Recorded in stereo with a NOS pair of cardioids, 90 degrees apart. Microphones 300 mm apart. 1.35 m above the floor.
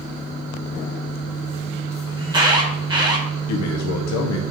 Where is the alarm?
15° right, 1.6 m.